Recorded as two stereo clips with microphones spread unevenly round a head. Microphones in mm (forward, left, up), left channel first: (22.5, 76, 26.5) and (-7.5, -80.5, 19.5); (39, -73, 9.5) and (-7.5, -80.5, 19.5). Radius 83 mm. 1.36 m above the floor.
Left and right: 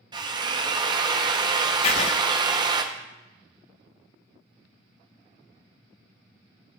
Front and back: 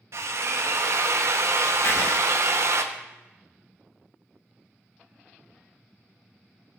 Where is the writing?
50° left, 0.6 m.